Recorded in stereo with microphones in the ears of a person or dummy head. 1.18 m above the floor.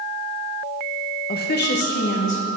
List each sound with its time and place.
1.3 s a woman speaking: 45° left (ahead or behind), 0.7 m; by 2.6 s 60° left (ahead or behind), 1.6 m